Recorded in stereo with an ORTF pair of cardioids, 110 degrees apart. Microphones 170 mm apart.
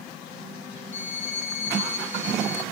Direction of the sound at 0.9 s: 45° left.